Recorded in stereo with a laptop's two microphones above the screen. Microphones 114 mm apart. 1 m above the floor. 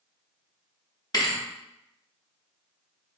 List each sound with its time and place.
1.1 s a thud: 35° left (ahead or behind), 0.6 m